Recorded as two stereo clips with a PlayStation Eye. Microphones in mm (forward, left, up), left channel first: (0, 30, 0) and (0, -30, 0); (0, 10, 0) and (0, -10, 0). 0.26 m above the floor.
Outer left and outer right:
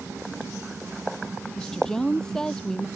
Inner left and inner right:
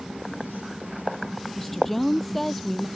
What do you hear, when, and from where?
1.6 s a woman speaking: 10° left (ahead or behind)